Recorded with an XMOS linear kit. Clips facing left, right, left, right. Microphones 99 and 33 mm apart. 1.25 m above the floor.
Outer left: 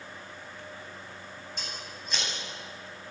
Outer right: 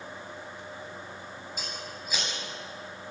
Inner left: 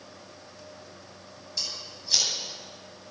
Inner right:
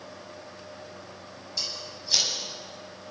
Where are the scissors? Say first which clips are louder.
Outer right 3 dB, inner right 1 dB; 5° right (ahead or behind), 10 m.